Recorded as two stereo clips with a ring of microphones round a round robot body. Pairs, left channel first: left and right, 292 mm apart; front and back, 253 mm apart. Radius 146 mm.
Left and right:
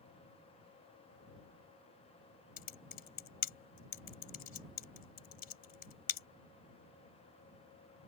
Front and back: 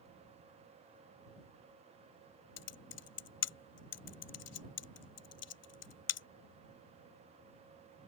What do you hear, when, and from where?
2.6 s typing on a keyboard: 25° left